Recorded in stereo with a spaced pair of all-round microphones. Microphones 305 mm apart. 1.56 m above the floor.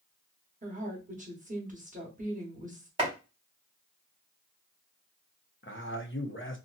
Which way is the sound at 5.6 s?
40° left (ahead or behind).